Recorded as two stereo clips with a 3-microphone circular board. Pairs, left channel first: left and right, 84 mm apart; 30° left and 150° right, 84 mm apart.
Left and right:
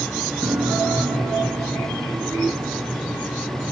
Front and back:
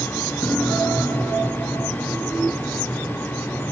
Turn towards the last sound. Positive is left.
turn(degrees=-25)